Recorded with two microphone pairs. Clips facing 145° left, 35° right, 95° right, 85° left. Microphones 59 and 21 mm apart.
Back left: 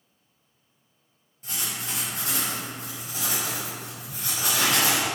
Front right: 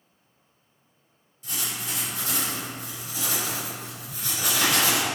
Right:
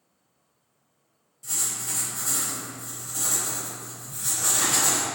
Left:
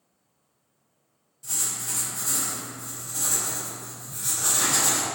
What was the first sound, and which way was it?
Writing, 165° left.